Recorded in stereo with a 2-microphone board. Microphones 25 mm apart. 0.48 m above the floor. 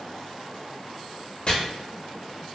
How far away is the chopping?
About 0.7 m.